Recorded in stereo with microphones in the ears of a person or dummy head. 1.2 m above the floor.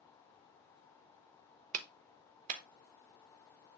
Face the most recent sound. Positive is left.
turn(degrees=-40)  # may be behind; listen again after turning